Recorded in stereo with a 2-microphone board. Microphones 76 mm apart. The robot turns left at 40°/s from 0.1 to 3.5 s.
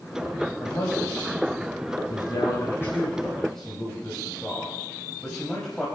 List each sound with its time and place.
0.6 s a man speaking: 125° left, 4 m; by 5.9 s 5° left, 4 m